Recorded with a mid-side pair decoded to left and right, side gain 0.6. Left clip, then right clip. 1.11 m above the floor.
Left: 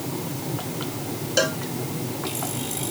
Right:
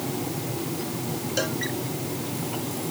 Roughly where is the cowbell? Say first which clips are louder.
Left 6 dB; ahead left.